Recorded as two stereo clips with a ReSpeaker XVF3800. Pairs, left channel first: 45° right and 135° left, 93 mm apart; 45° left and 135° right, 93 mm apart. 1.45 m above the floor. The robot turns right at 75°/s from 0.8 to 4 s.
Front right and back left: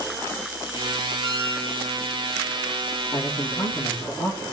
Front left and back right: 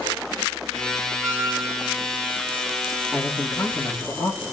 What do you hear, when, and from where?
1.2 s a squeak: 145° left, 5 m; by 1.9 s 165° right, 5 m
3.1 s a man speaking: 65° right, 4 m; by 4.4 s straight ahead, 4 m